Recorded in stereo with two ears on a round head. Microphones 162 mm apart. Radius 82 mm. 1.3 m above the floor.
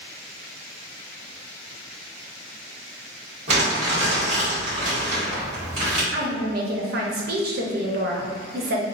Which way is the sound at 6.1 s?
55° right (ahead or behind).